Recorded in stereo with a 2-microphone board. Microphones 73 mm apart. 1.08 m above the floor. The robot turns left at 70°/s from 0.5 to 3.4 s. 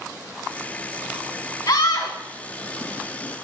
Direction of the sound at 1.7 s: 110° left.